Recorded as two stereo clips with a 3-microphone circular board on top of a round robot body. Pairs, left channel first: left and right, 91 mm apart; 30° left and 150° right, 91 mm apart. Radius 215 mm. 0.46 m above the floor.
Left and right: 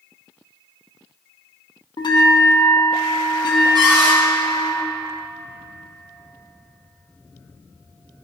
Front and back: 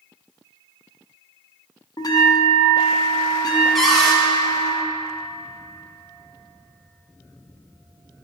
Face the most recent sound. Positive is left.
turn(degrees=-55)